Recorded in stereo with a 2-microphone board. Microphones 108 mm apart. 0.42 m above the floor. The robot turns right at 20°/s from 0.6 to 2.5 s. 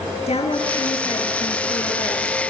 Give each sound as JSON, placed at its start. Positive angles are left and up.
{"t": 0.3, "sound": "a woman speaking", "azimuth_deg": 75, "distance_m": 8.0}